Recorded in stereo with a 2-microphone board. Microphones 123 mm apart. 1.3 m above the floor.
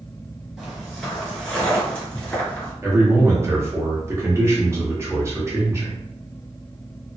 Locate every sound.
0.6 s footsteps: centre (ahead or behind), 1.3 m; by 2.7 s 10° left (ahead or behind), 1.4 m
2.8 s a man speaking: 20° right (ahead or behind), 0.9 m